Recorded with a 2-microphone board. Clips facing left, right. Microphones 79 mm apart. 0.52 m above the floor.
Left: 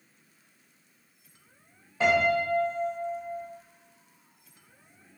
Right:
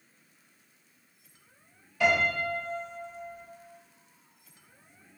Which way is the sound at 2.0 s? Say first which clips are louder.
Left 3 dB; 30° left (ahead or behind).